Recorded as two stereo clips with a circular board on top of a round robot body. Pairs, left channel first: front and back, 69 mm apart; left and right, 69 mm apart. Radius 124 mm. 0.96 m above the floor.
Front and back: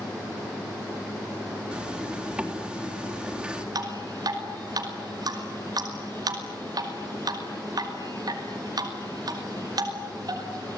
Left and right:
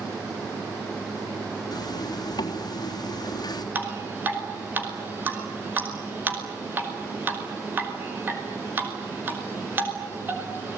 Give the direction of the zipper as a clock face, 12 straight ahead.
9 o'clock.